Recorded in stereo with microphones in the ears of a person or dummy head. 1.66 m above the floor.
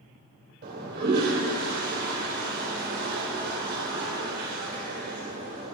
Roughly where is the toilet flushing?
Right.